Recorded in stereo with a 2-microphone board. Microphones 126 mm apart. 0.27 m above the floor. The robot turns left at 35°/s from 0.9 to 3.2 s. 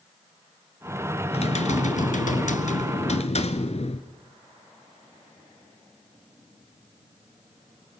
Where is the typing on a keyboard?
125° left, 1.2 m; by 4.1 s 60° left, 1.2 m.